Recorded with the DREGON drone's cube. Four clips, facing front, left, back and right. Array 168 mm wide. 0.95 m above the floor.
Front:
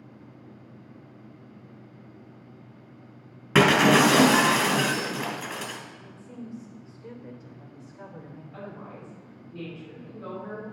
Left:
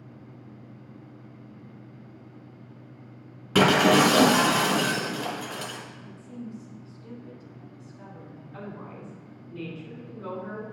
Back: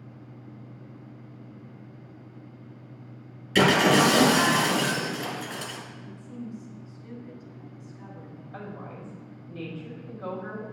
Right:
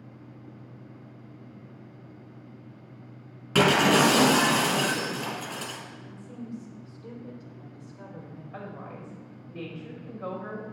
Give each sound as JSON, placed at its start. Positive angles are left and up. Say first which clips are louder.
{"t": 3.5, "sound": "breaking glass", "louder": "left 2 dB, front 1 dB", "azimuth_deg": 10, "distance_m": 3.5}
{"t": 6.0, "sound": "a woman speaking", "louder": "left 1 dB, back 2 dB", "azimuth_deg": -30, "distance_m": 3.0}
{"t": 8.5, "sound": "a woman speaking", "louder": "even, back 2 dB", "azimuth_deg": -115, "distance_m": 5.5}